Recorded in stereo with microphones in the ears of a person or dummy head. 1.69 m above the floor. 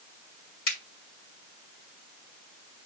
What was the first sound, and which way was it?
A finger snap, 75° left (ahead or behind).